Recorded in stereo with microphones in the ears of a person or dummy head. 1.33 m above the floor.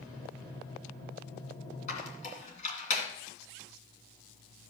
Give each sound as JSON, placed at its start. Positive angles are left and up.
{"t": 1.9, "sound": "a squeak", "side_deg": 45, "distance_m": 2.5}